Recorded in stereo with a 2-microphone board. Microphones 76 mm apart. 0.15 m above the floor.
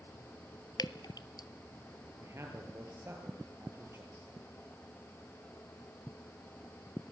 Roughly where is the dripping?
Left.